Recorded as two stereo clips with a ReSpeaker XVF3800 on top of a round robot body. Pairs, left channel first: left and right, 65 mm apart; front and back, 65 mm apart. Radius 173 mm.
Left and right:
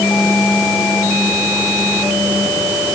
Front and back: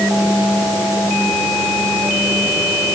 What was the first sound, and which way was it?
Only background noise.